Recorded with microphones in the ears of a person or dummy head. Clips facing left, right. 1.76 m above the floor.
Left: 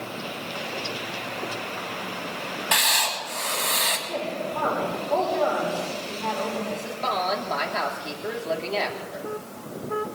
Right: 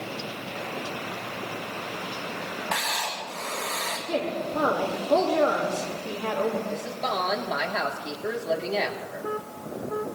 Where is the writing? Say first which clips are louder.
Left 5 dB; 50° left (ahead or behind), 2.5 m.